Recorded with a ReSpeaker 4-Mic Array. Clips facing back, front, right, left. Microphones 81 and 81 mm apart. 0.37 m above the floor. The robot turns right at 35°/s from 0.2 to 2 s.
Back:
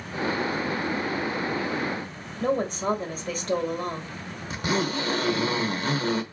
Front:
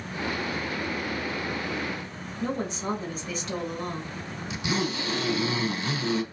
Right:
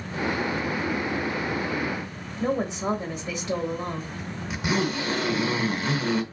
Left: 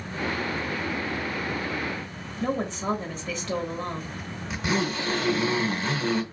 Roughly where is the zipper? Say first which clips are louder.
Back 3 dB, right 1 dB; behind.